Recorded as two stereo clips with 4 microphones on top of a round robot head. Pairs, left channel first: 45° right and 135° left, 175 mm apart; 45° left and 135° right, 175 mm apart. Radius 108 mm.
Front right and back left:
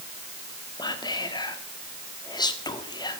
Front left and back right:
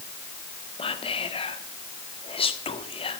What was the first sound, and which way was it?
Whispering, 5° left.